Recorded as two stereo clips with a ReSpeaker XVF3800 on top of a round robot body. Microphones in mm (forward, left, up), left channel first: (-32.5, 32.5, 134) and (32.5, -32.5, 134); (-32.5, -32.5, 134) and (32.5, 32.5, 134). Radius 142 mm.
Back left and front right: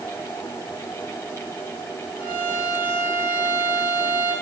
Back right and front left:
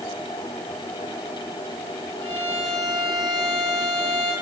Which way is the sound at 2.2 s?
65° right.